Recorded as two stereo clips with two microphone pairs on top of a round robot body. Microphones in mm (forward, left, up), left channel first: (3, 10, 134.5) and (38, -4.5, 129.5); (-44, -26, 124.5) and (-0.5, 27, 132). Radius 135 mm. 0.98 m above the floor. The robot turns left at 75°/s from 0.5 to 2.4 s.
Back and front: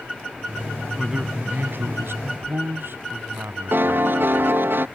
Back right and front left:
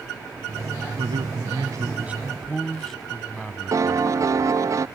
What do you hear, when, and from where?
1.0 s a man speaking: 65° left; by 4.6 s 45° right
3.7 s a piano: 5° left